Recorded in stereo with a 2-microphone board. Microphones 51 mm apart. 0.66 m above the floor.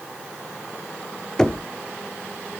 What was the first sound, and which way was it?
Knocking, 15° left (ahead or behind).